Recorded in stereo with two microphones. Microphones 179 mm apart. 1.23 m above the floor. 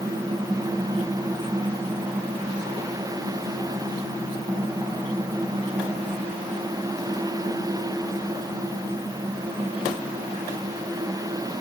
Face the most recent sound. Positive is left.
No sound to turn to.